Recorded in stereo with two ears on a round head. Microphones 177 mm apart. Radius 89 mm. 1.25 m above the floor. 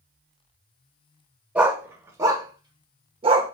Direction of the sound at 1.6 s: 5° right (ahead or behind).